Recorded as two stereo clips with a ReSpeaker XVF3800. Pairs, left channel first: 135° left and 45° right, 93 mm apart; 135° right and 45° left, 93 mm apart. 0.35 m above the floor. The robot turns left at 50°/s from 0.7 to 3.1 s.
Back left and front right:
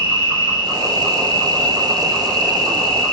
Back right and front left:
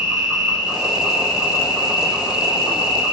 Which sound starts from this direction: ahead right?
An insect, at 0.0 s.